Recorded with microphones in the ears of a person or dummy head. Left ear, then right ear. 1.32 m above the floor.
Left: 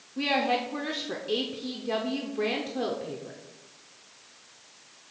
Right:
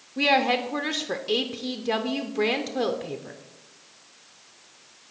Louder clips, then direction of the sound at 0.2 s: Right 5 dB; 25° right (ahead or behind).